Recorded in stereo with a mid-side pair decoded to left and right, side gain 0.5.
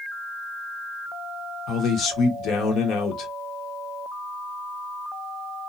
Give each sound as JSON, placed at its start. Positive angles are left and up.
{"t": 1.7, "sound": "a man speaking", "azimuth_deg": 65, "distance_m": 1.2}